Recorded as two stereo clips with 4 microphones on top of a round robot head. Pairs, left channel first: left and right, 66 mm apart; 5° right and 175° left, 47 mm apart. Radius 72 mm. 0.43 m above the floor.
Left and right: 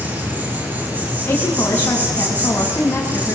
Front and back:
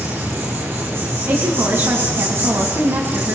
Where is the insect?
150° right, 6.5 m.